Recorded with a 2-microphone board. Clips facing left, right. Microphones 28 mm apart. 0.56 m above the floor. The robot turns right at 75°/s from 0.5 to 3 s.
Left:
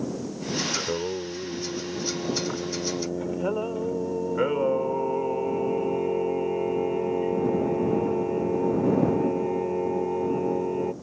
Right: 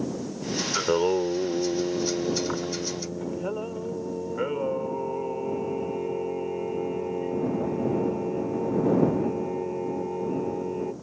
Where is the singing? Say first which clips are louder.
Right 6 dB; 150° right; by 10.9 s 20° left.